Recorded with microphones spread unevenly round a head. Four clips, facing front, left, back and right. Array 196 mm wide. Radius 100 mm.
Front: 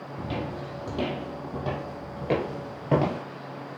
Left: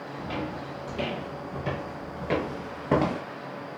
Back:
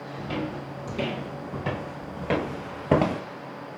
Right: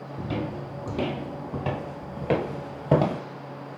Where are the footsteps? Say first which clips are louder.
Right 3 dB, back 1 dB; 65° right, 1.9 m; by 3.2 s 145° right, 1.1 m.